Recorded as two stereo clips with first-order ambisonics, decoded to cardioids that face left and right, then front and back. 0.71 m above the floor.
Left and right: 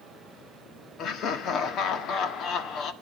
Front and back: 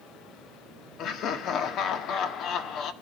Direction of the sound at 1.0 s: 45° left.